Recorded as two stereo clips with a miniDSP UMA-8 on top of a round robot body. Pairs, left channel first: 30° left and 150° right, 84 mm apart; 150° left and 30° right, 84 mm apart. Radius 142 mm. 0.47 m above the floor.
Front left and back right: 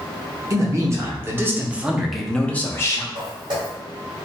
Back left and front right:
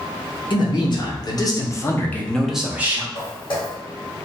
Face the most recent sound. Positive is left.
turn(degrees=175)